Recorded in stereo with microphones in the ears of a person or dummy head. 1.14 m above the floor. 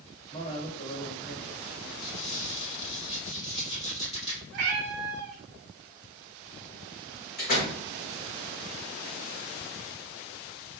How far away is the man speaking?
About 1.3 m.